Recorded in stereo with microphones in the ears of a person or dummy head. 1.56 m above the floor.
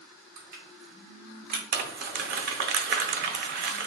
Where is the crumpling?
45° right (ahead or behind), 0.7 m.